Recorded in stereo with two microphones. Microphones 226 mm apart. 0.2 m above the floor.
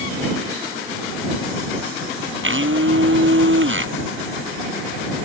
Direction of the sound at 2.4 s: 60° right (ahead or behind).